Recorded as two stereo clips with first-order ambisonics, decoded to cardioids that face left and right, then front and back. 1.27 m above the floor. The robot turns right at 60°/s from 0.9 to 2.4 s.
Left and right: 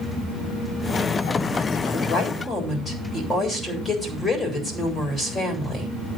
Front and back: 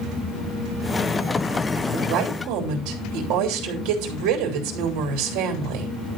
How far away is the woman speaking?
About 3.5 m.